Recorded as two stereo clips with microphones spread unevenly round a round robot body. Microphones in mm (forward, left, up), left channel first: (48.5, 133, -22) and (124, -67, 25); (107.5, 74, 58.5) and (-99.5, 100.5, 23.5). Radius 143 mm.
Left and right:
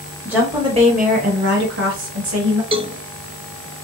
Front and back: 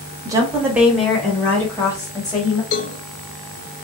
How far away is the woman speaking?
About 0.9 m.